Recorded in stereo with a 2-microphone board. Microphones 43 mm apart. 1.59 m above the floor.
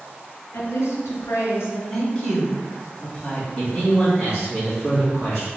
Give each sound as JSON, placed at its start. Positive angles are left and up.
{"t": 0.5, "sound": "a woman speaking", "side_deg": 70, "distance_m": 1.4}
{"t": 1.9, "sound": "a woman speaking", "side_deg": 15, "distance_m": 1.9}
{"t": 3.6, "sound": "a man speaking", "side_deg": -10, "distance_m": 1.8}